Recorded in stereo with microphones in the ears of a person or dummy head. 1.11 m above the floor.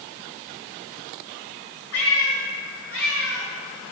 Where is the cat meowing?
80° left, 3.5 m; by 3.5 s 70° left (ahead or behind), 4.5 m.